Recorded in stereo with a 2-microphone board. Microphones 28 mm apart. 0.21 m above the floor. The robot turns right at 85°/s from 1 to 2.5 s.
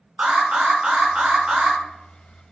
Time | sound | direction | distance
0.2 | an alarm | 110° right | 1.1 m